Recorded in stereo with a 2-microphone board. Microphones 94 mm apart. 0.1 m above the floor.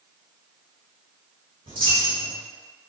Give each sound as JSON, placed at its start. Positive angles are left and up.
{"t": 1.7, "sound": "a dropped coin", "side_deg": -70, "distance_m": 1.1}